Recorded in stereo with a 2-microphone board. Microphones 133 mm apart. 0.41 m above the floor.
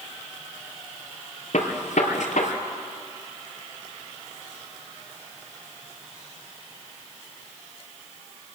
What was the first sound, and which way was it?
A gunshot, 70° left (ahead or behind).